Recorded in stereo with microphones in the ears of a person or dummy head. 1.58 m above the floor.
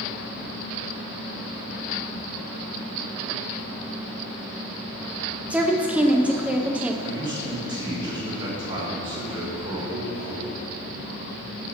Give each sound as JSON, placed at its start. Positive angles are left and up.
{"t": 5.5, "sound": "a woman speaking", "side_deg": -10, "distance_m": 0.7}
{"t": 7.0, "sound": "a man speaking", "side_deg": -20, "distance_m": 3.0}